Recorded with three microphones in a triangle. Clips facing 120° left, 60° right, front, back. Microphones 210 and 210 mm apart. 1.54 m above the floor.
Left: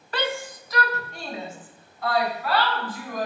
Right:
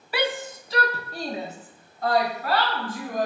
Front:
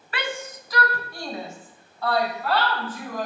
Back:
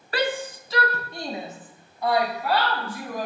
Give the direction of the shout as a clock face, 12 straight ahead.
5 o'clock.